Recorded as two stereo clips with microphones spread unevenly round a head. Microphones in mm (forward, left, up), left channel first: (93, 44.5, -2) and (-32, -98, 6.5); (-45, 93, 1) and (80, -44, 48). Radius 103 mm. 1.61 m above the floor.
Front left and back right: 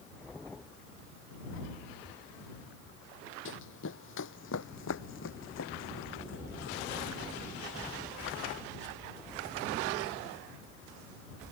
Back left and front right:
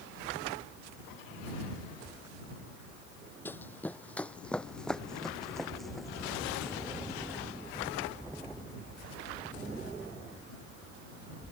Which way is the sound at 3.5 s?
50° left.